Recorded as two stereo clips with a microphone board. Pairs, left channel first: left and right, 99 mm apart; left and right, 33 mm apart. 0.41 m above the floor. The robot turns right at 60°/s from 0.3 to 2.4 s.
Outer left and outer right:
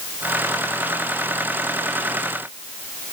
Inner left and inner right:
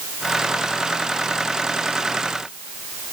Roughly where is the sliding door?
I don't hear a sliding door.